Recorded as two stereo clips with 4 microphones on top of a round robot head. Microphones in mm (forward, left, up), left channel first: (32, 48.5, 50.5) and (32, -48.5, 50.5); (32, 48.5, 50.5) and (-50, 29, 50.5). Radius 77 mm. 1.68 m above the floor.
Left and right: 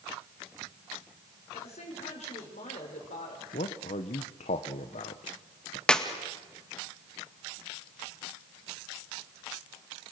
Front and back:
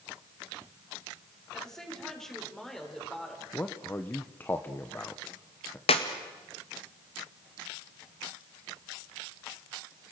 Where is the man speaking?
80° left, 1.3 m.